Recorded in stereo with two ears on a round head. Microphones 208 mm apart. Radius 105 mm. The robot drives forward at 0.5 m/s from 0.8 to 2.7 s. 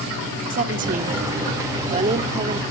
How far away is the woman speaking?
About 1.1 m.